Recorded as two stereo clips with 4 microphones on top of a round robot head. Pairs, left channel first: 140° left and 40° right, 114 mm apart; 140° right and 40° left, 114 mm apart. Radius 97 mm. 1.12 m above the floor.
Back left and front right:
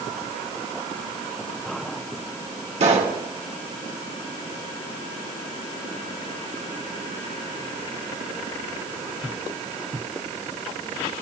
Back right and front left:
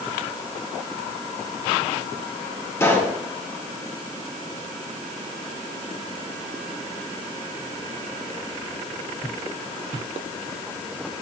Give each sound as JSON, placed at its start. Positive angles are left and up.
{"t": 2.8, "sound": "a pop", "azimuth_deg": -75, "distance_m": 2.5}